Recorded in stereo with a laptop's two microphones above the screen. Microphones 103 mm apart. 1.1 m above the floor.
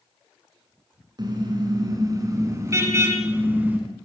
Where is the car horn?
45° right (ahead or behind), 7.5 m; by 3.8 s 15° right (ahead or behind), 6 m.